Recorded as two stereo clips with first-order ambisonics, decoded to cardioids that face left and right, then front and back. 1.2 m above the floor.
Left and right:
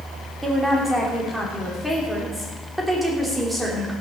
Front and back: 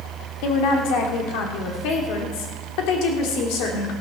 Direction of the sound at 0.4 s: Straight ahead.